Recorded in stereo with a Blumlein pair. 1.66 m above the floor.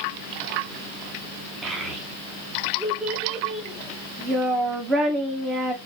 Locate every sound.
1.6 s a child speaking: 15° right, 1.5 m